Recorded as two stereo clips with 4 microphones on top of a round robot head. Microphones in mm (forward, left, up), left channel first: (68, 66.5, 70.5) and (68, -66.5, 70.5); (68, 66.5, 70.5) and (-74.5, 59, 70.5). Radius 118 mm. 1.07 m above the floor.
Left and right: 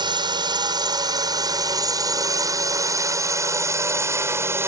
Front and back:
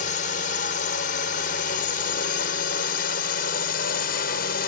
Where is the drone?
35° right; by 4.7 s 20° right.